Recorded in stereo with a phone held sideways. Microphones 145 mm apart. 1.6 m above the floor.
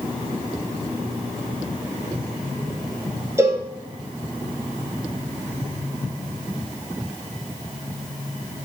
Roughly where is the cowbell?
Centre.